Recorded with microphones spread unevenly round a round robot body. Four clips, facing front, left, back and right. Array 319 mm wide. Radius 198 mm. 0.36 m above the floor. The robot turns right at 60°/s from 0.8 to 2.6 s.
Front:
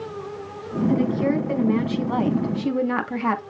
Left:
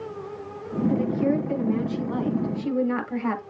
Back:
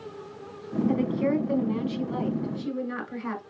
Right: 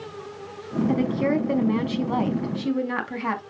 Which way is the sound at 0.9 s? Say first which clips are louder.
Even, front 5 dB; 105° right.